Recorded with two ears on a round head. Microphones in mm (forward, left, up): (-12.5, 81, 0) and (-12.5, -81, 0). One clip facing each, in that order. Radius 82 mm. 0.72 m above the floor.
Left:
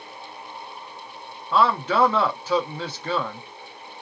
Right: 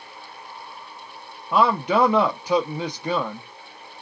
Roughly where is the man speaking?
Centre.